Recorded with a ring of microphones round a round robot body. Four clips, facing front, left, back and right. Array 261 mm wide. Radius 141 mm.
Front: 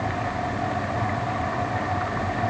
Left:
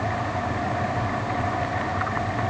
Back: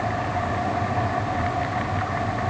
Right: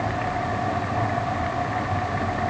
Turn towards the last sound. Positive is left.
No sound to turn to.